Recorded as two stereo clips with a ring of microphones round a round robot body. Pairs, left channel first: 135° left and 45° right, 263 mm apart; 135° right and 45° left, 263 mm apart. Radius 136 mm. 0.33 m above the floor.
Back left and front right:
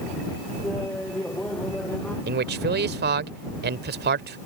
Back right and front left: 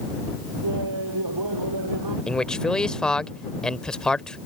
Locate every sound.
0.6 s laughter: 50° left
2.3 s a man speaking: 50° right